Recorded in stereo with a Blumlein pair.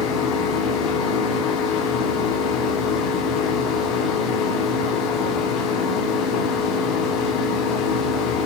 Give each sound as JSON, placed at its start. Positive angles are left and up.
{"t": 0.0, "sound": "a machine running", "azimuth_deg": 35, "distance_m": 3.5}